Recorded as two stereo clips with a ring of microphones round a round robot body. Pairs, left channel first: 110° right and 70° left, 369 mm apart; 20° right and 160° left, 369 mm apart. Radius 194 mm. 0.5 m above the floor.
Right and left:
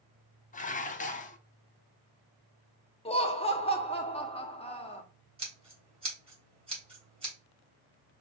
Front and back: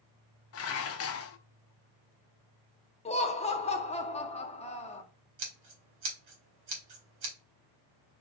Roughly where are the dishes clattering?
Ahead right.